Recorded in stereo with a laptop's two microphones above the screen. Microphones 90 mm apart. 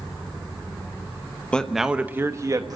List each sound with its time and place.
1.5 s a man speaking: 10° left (ahead or behind), 0.9 m; by 2.8 s 45° right (ahead or behind), 1.4 m